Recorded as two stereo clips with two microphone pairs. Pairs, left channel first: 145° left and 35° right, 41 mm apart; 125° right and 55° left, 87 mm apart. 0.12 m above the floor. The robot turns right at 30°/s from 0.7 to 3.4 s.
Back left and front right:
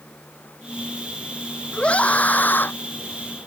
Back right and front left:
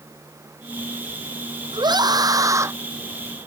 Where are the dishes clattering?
No dishes clattering in this recording.